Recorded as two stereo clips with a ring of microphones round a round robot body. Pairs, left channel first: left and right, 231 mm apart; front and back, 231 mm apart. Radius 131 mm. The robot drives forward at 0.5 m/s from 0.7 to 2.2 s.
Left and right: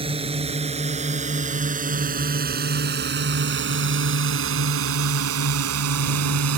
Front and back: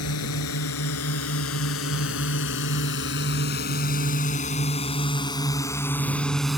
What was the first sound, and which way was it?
A drone, 25° right.